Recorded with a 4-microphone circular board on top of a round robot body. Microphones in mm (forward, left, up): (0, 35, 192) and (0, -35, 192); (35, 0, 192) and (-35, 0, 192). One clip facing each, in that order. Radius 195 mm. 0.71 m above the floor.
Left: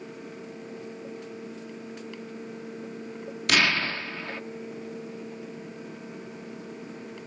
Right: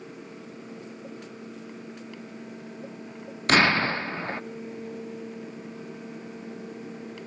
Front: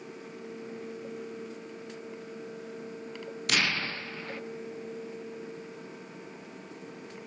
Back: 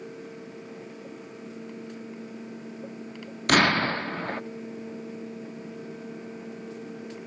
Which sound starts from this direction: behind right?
An explosion, at 3.5 s.